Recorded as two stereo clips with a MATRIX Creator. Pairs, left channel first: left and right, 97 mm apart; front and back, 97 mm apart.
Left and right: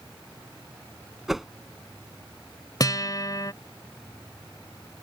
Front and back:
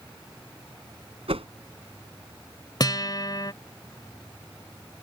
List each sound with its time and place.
1.3 s a whoosh: straight behind
2.8 s a guitar: 45° left